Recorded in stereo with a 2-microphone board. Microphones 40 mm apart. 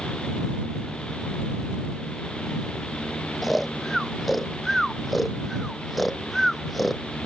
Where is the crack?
No crack in this recording.